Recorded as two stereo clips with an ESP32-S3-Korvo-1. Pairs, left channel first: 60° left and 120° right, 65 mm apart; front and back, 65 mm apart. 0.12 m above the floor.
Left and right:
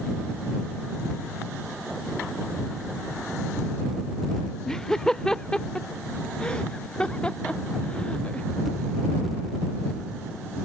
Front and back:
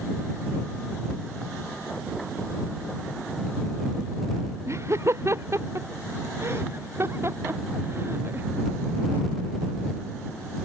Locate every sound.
4.7 s laughter: 140° left; by 8.5 s 130° left